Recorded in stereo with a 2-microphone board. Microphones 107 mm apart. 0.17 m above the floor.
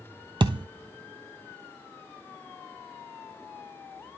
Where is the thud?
50° right (ahead or behind), 1.0 m.